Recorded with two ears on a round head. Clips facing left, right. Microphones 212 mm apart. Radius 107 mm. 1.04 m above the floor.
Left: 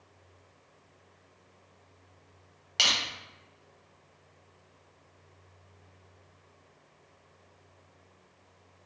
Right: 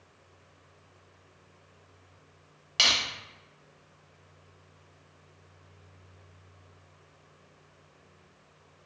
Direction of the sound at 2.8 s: Centre (ahead or behind).